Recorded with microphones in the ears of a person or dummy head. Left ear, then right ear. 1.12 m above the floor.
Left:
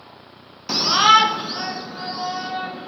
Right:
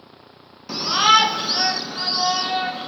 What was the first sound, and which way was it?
A shout, 15° left (ahead or behind).